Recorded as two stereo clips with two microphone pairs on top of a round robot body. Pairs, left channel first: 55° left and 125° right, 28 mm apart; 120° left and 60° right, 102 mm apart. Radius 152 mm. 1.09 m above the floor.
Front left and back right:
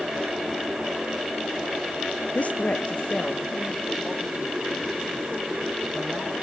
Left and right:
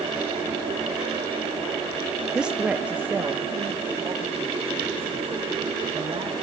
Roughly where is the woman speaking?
Ahead.